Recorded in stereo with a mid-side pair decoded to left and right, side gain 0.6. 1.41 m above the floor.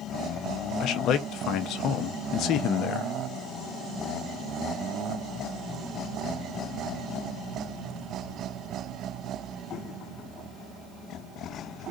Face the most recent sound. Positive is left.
turn(degrees=60)